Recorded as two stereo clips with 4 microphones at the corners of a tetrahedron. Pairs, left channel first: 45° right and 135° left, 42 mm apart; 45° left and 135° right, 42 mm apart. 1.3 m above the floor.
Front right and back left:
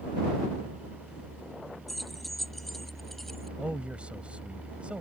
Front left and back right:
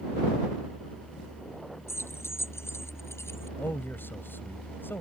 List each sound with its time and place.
1.9 s keys jangling: 45° left; by 3.5 s 40° left
3.6 s a man speaking: 75° left